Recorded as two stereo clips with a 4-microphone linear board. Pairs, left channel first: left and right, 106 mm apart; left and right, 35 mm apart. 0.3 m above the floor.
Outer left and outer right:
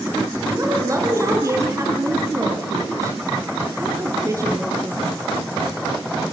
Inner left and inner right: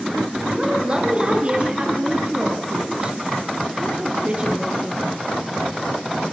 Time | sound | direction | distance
0.5 | a woman speaking | 30° right (ahead or behind) | 5 m